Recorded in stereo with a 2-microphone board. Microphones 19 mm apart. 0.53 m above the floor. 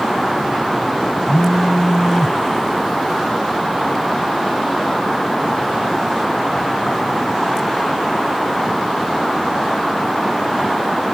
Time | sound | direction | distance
1.3 | a phone buzzing | 25° right (ahead or behind) | ?